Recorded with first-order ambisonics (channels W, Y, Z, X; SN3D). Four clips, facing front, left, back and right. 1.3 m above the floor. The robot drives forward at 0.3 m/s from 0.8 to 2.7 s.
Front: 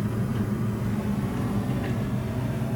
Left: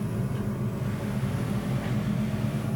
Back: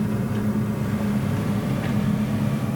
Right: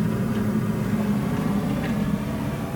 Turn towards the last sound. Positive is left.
turn(degrees=-150)